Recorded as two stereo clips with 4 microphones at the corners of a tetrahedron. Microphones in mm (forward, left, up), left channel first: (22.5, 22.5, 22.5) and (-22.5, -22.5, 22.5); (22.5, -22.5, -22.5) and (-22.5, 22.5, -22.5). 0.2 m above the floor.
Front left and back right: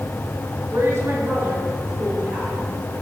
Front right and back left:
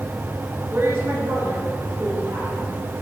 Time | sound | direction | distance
0.7 | a woman speaking | 175° right | 3 m